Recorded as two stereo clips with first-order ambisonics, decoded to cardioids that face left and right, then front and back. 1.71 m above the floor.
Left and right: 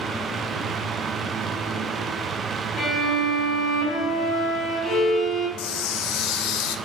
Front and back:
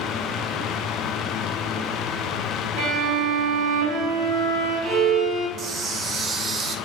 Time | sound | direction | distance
2.8 | a violin | 145° left | 1.6 m
5.6 | a camera shutter | 115° left | 0.5 m